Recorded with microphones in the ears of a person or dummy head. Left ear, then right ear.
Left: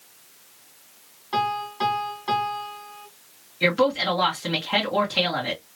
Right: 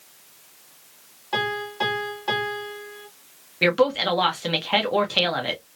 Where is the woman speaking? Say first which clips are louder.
Right 1 dB; 20° right (ahead or behind), 0.9 m.